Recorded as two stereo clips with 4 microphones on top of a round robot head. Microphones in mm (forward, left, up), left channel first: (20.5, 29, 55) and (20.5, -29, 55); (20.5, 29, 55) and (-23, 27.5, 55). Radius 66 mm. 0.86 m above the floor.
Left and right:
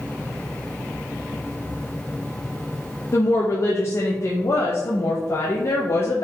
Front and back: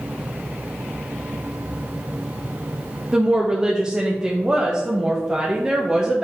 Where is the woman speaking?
115° left, 0.7 m.